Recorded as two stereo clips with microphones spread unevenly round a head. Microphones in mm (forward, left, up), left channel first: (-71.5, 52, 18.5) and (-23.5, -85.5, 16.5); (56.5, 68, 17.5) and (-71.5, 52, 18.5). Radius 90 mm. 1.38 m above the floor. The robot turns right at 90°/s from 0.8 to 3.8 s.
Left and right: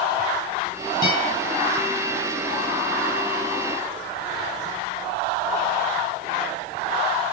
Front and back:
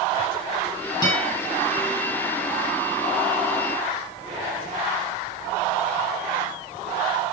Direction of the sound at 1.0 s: 130° left.